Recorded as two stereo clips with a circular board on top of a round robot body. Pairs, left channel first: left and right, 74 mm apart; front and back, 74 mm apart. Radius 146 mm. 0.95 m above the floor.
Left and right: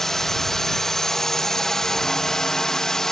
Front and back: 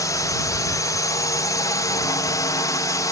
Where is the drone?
5° left; by 3.1 s 10° left.